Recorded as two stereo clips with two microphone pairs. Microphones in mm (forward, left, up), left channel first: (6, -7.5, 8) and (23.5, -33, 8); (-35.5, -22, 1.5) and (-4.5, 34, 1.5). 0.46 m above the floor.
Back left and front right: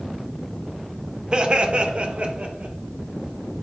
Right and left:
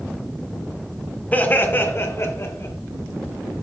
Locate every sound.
1.3 s laughter: 80° right, 1.2 m; by 2.8 s 90° right, 2 m